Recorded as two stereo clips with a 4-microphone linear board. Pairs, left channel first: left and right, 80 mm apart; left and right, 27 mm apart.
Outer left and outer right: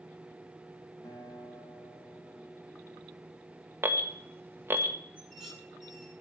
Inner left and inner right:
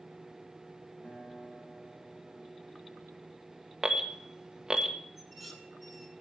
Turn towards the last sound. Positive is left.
turn(degrees=5)  # may be behind; listen again after turning